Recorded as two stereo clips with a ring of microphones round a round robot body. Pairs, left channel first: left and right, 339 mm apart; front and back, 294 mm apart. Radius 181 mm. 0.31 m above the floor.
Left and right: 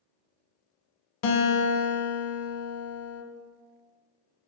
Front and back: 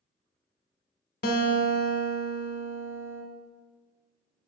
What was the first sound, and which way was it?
A guitar, 60° left.